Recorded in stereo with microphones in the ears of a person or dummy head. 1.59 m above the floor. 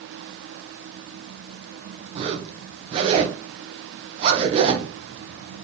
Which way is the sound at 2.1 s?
35° right (ahead or behind).